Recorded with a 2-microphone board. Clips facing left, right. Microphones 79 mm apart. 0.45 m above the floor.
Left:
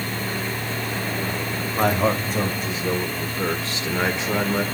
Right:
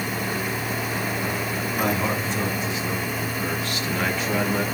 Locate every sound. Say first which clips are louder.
1.8 s a man speaking: left 5 dB; 55° left (ahead or behind), 2.5 m; by 4.6 s 15° left (ahead or behind), 1.6 m